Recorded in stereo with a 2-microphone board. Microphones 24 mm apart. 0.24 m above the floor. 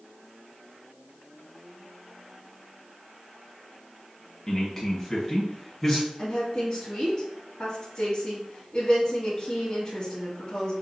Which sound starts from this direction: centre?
A man speaking, at 4.5 s.